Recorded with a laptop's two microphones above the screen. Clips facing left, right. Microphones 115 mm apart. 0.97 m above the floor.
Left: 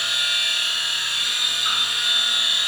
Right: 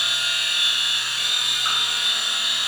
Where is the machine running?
35° right (ahead or behind), 1.1 m.